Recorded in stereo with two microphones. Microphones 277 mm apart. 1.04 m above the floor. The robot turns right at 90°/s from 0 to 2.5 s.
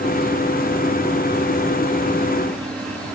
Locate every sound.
Only background noise.